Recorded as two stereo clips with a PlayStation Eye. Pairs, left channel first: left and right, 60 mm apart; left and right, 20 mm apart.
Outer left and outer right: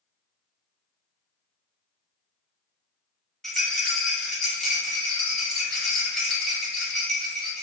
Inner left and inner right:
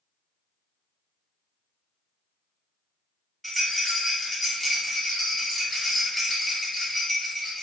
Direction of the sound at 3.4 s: 10° left (ahead or behind).